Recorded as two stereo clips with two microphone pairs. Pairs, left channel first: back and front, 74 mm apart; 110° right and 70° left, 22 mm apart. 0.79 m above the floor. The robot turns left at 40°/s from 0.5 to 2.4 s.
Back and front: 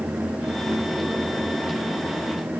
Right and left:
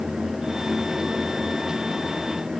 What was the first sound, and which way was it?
Only background noise.